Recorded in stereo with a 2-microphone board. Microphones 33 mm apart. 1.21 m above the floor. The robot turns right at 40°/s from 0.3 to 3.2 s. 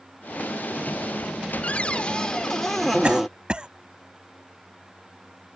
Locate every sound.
1.6 s a cupboard door: 125° left; by 3.3 s 170° right
3.0 s a cough: 35° right (ahead or behind); by 3.7 s 30° right (ahead or behind)